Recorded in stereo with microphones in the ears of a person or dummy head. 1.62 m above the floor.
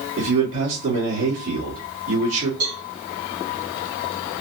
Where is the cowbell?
80° right, 3 m.